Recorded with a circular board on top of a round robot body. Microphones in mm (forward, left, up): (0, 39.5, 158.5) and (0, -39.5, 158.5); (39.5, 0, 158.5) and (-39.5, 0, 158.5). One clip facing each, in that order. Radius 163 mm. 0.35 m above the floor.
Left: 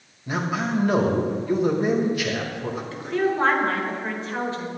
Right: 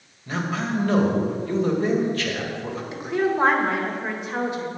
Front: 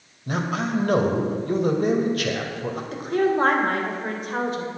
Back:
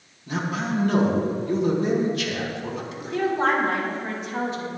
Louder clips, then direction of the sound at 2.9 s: Right 1 dB, front 4 dB; 20° right.